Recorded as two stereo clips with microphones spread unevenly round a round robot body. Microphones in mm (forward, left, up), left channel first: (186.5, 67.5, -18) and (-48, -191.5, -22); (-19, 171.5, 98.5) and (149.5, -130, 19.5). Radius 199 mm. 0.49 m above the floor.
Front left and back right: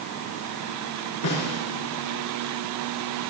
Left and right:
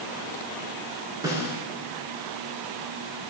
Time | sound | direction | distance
1.2 | a snare drum | 20° left | 7 m